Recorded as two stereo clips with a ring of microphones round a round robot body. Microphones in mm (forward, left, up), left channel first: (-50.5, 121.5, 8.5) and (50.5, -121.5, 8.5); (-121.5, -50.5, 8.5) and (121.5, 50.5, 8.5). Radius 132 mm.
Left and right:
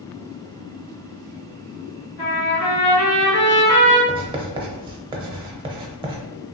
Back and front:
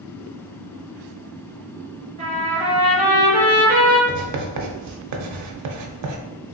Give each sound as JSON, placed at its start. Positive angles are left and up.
{"t": 2.2, "sound": "a trumpet", "azimuth_deg": 90, "distance_m": 1.8}
{"t": 4.1, "sound": "writing", "azimuth_deg": 5, "distance_m": 0.6}